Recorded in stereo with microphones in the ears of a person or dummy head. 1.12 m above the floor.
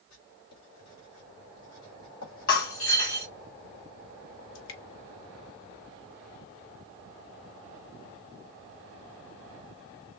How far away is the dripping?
About 2 m.